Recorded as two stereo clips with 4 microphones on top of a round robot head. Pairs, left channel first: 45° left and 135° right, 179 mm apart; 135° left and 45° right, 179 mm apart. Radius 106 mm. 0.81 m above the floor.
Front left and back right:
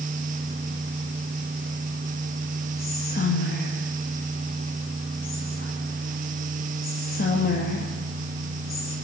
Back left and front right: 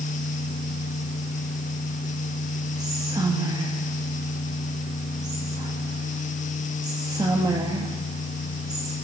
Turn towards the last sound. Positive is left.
turn(degrees=20)